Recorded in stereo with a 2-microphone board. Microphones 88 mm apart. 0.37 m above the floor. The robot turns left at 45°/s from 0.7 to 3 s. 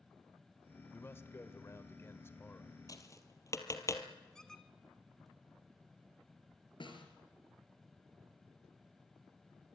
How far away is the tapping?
About 2.5 m.